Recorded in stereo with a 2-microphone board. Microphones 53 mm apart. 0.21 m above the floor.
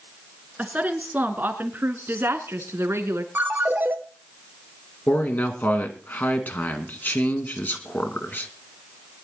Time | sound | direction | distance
0.6 | a woman speaking | 25° right (ahead or behind) | 3 m
3.4 | a ringtone | 35° right (ahead or behind) | 1.7 m
5.1 | a man speaking | 40° left (ahead or behind) | 2.5 m